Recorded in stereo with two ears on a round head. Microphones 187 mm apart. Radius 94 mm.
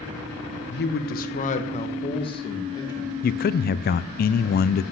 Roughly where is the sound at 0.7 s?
Left.